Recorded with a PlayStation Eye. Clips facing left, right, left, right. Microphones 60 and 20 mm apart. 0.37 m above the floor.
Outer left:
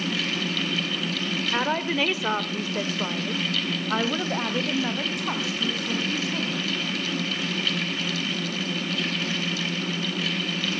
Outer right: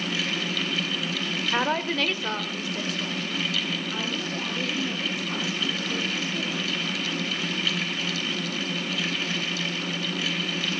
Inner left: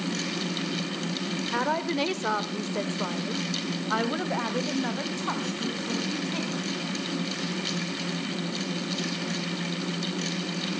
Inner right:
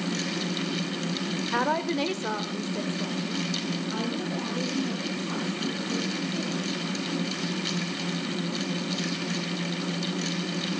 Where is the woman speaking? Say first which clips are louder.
Even, inner right 1 dB; 5° right (ahead or behind), 1.0 m; by 6.7 s 75° left (ahead or behind), 3 m.